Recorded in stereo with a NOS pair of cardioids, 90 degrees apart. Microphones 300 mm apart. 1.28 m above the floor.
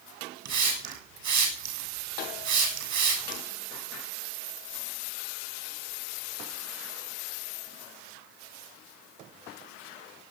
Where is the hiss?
65° right, 8 m.